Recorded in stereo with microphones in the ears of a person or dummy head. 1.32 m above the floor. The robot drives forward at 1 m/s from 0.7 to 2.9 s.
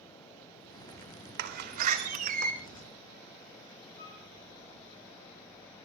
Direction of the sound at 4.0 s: 20° left (ahead or behind).